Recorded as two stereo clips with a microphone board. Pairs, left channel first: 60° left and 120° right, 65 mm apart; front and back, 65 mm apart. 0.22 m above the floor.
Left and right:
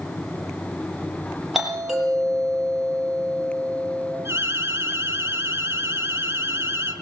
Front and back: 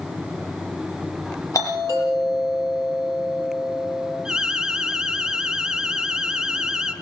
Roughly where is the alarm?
Right.